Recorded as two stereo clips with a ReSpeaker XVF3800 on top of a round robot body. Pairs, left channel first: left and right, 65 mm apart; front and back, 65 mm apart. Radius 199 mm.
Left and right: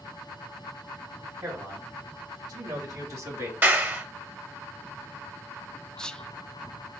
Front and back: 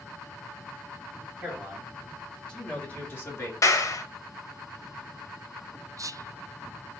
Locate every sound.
1.4 s a man speaking: 100° right, 3 m; by 3.5 s 45° right, 2 m
3.6 s a clap: 35° right, 1.2 m
6.0 s whispering: 165° left, 0.5 m